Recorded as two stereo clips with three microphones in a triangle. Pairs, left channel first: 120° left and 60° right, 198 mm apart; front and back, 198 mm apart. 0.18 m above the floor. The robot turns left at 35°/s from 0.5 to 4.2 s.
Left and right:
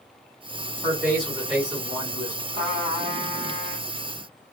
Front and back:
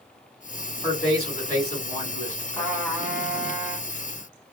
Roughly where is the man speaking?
Ahead left.